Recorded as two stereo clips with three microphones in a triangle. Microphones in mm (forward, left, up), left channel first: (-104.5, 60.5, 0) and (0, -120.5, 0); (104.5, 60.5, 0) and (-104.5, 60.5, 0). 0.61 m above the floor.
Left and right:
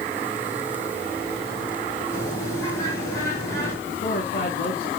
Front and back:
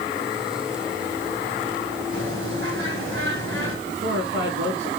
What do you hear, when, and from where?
2.1 s a bird: 165° right, 5 m
3.9 s a man speaking: 175° left, 5 m